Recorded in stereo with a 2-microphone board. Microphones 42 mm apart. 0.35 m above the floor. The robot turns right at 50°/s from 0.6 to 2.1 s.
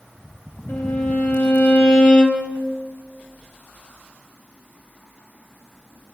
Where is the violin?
85° left, 1.9 m; by 2.5 s 155° left, 1.9 m.